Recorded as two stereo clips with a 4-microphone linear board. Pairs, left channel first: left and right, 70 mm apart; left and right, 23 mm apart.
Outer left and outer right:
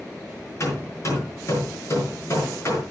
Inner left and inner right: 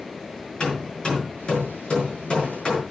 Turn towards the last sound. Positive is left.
turn(degrees=45)  # may be behind; listen again after turning